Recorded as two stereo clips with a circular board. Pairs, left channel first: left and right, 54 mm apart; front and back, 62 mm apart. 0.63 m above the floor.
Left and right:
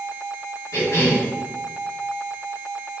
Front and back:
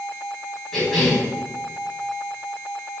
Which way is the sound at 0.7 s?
85° left.